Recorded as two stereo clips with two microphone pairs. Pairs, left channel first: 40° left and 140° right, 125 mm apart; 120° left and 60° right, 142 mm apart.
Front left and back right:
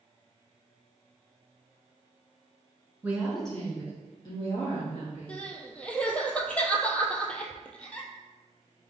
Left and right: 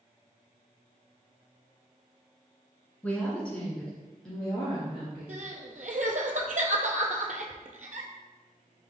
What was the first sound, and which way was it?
A woman speaking, straight behind.